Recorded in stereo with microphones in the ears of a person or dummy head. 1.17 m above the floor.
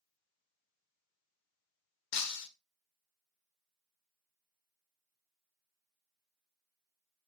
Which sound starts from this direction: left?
Breaking glass, at 2.1 s.